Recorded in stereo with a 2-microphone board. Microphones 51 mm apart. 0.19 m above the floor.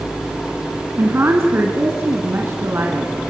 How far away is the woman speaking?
About 2 m.